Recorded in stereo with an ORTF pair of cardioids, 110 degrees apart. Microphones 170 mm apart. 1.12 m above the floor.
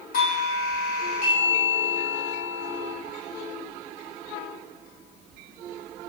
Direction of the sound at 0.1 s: 60° left.